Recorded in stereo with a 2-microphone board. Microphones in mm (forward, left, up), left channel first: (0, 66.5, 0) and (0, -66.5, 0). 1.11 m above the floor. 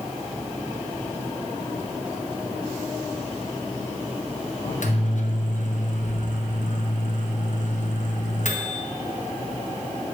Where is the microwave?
70° left (ahead or behind), 0.6 m.